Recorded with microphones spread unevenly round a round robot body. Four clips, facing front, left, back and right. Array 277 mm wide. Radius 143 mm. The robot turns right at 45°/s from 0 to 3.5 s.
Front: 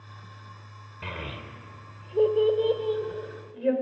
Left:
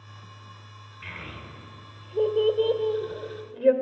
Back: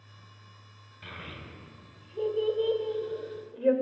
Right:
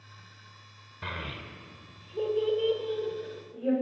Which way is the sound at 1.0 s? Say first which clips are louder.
Right 3 dB, front 6 dB; 25° right.